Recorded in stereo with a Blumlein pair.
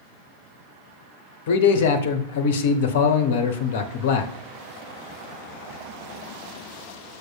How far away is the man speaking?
About 0.6 m.